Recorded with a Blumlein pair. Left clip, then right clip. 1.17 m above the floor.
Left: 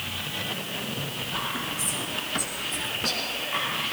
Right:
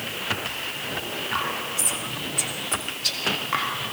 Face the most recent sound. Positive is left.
turn(degrees=-60)